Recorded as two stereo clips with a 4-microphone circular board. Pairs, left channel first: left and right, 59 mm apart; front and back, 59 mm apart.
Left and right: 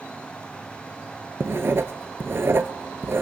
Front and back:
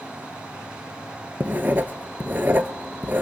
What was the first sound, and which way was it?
Writing, 125° right.